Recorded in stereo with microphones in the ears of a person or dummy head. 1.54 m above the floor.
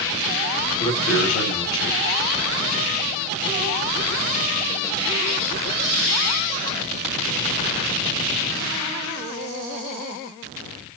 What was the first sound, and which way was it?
A man speaking, 55° left (ahead or behind).